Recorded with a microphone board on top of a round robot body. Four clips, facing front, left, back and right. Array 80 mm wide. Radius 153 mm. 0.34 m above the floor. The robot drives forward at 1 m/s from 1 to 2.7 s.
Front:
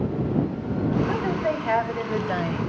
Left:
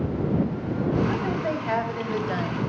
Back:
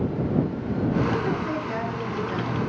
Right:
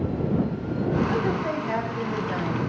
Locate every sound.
1.1 s a woman speaking: 15° left, 4 m; by 2.6 s 25° left, 2.5 m